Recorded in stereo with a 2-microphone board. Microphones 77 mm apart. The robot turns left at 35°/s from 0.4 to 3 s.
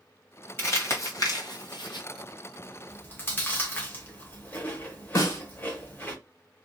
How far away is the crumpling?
About 1.1 m.